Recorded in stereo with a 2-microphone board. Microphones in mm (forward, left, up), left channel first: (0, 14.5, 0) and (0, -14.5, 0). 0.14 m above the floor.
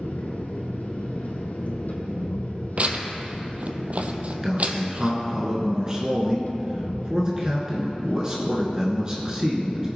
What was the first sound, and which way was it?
An engine running, 80° left.